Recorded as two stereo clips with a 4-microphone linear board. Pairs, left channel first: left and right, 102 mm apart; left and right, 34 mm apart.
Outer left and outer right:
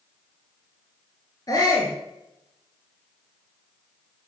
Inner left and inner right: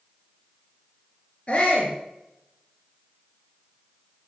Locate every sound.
1.5 s a shout: 35° left (ahead or behind), 3.5 m